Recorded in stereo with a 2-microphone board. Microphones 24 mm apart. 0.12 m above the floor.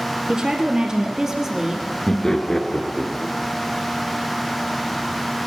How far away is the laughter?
About 1.6 m.